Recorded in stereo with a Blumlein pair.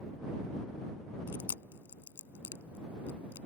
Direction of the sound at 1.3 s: 65° left.